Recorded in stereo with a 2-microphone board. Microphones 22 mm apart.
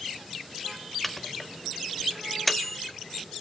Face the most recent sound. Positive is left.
turn(degrees=10)  # may be behind; listen again after turning